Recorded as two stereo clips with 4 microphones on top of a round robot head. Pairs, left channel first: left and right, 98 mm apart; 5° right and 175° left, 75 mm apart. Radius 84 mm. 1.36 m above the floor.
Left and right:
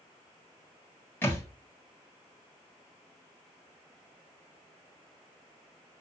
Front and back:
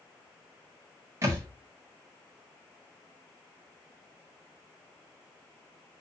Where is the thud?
150° left, 1.2 m.